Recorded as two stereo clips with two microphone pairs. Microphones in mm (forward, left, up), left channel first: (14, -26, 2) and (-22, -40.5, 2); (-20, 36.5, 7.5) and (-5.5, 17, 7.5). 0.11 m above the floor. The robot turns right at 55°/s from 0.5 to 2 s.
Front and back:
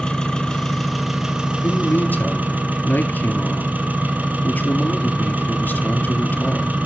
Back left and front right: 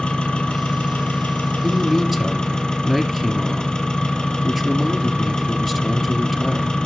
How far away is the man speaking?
About 1.9 m.